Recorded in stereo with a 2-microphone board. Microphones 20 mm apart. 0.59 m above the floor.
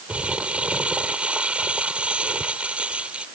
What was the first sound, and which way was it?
Crumpling, 70° right (ahead or behind).